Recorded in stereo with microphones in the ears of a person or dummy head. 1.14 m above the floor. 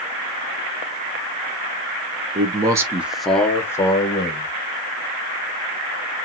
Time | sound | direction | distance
2.4 | a man speaking | 30° right (ahead or behind) | 0.6 m